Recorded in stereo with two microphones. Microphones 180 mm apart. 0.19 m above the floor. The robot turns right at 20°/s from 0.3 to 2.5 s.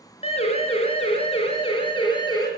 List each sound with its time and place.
0.2 s a siren: 35° left (ahead or behind), 3.5 m; by 2.5 s 25° left (ahead or behind), 5 m